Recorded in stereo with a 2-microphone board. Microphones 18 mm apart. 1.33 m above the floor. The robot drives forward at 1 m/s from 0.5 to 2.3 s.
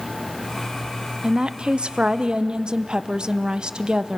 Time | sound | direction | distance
1.2 | a woman speaking | 50° right (ahead or behind) | 1.0 m